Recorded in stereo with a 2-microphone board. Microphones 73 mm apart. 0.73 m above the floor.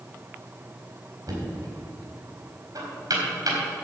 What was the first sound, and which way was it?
Knocking, 55° right (ahead or behind).